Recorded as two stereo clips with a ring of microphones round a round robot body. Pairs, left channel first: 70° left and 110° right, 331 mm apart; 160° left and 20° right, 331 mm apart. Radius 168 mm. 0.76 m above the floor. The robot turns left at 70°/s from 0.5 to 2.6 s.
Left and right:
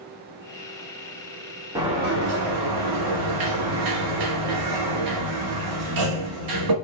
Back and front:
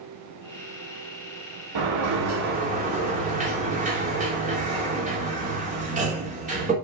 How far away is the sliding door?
About 2.5 m.